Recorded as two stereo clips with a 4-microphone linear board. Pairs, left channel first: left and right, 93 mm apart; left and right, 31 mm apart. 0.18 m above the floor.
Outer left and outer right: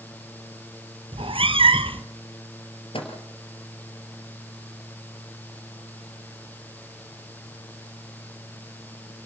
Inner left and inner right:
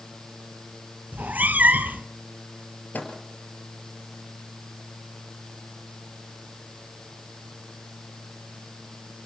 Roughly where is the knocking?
No knocking in this recording.